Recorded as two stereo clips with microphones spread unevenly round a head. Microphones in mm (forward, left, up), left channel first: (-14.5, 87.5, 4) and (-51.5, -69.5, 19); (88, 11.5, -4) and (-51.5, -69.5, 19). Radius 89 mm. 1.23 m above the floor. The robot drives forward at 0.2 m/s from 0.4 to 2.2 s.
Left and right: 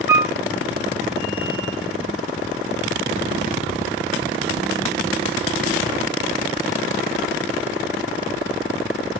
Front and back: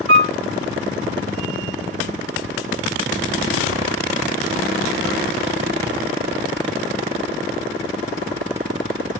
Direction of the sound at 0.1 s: Straight behind.